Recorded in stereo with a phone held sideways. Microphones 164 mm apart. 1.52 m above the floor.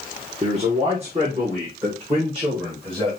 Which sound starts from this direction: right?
A man speaking, at 0.4 s.